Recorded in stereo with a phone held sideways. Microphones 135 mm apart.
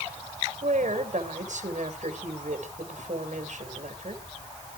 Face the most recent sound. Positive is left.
turn(degrees=-65)  # may be behind; listen again after turning